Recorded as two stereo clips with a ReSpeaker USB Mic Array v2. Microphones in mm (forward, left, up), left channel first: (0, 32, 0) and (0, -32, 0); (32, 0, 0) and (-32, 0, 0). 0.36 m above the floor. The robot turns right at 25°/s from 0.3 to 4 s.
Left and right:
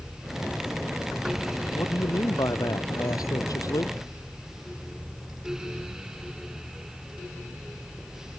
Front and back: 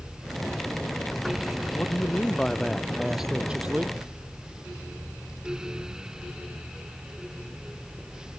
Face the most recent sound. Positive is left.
turn(degrees=115)